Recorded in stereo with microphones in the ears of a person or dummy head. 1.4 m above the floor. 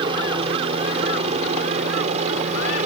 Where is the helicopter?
25° right (ahead or behind); by 2.9 s 35° right (ahead or behind).